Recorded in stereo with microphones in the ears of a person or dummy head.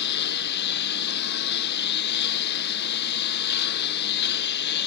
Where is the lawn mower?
65° left (ahead or behind).